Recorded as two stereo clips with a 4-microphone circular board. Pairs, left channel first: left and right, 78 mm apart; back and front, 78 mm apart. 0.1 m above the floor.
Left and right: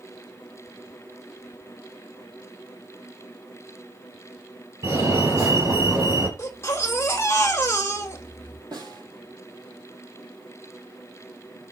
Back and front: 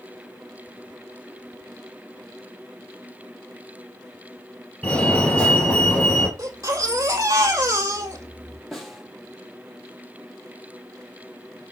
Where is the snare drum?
90° right, 4 m.